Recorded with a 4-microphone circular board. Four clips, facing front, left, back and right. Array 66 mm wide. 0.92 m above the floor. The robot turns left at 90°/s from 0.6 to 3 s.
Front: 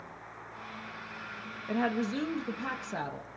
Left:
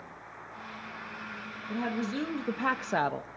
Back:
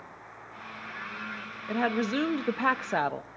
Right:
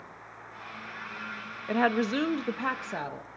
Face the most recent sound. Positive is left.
turn(degrees=145)